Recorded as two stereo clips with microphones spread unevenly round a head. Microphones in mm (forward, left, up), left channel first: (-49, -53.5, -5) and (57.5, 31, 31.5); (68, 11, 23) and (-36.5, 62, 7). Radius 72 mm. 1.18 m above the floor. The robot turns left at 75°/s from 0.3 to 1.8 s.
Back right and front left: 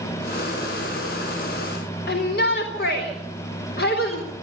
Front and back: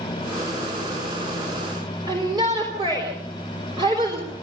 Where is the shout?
145° right, 3.5 m.